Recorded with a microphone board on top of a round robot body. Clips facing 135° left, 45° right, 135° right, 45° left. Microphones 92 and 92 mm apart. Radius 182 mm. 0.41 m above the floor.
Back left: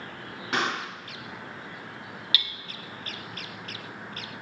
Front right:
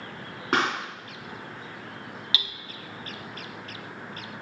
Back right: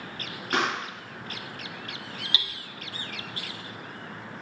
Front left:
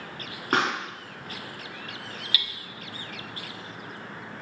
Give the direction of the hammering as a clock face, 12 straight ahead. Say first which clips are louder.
Even, even; 3 o'clock.